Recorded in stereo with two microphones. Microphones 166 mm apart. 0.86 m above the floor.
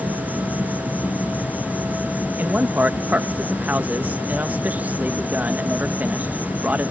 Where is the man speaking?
10° right (ahead or behind).